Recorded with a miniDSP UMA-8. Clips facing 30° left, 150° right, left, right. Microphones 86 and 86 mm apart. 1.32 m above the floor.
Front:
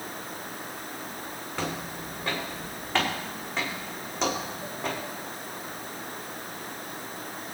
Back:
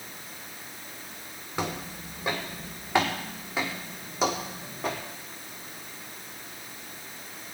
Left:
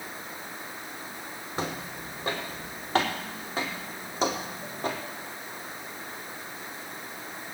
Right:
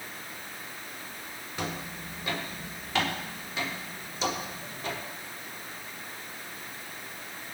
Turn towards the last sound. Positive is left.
turn(degrees=125)